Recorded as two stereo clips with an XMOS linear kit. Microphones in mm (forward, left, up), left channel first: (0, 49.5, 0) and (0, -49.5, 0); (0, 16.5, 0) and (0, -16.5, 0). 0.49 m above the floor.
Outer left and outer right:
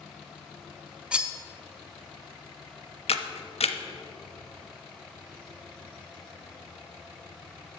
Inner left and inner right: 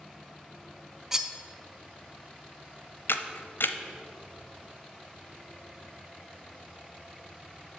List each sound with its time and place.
1.1 s cutlery clinking: 10° right (ahead or behind), 0.7 m
3.1 s a camera shutter: 85° left, 0.7 m